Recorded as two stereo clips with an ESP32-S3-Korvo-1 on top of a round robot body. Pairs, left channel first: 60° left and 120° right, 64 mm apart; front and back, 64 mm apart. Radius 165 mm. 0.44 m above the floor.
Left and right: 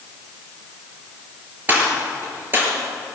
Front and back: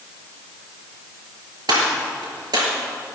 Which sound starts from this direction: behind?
A gunshot, at 1.7 s.